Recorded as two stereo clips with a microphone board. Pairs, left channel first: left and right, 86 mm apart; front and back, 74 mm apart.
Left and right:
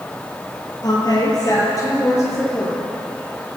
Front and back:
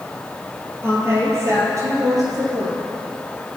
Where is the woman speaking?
125° left, 4.5 m; by 2.8 s 150° left, 5.5 m.